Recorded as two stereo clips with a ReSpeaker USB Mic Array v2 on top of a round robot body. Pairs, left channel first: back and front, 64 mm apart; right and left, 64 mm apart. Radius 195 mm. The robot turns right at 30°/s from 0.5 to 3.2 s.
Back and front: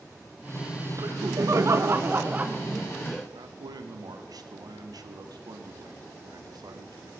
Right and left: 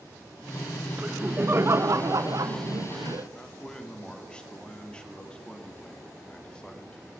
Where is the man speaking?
15° right, 2.5 m.